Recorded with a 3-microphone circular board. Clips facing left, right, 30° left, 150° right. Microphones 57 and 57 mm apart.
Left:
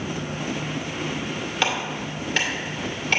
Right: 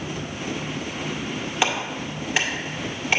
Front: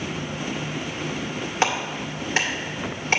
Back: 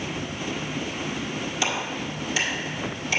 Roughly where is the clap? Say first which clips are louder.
Right 1 dB, front 5 dB; ahead.